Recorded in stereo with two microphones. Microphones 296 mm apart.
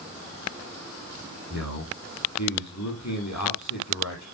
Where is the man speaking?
65° left (ahead or behind), 7 m.